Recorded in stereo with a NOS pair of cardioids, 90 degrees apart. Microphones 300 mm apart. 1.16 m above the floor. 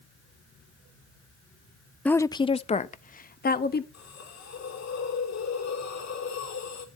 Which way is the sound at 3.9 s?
60° left.